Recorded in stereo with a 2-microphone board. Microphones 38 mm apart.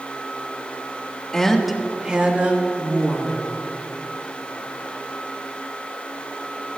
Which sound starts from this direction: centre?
A woman speaking, at 1.3 s.